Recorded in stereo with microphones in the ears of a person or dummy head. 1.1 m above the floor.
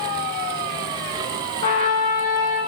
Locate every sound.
1.6 s a trumpet: 30° left (ahead or behind), 1.0 m